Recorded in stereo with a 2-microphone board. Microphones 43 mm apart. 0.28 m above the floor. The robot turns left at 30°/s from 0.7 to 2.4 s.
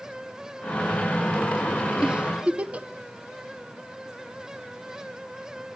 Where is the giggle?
20° right (ahead or behind), 0.6 m; by 2.9 s 30° right (ahead or behind), 0.6 m.